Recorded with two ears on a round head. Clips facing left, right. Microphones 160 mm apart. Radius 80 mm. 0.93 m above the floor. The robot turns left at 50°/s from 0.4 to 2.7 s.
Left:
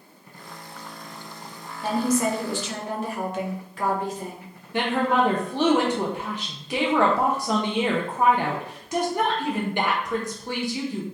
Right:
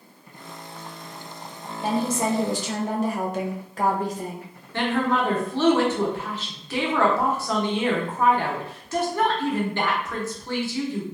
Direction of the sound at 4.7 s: 15° left (ahead or behind).